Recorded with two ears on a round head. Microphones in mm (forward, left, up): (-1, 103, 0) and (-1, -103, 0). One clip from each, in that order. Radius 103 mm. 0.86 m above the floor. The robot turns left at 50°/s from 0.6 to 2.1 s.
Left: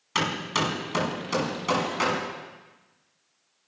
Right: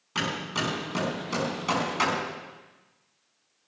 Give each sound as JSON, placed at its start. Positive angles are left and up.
{"t": 0.1, "sound": "hammering", "side_deg": 55, "distance_m": 5.5}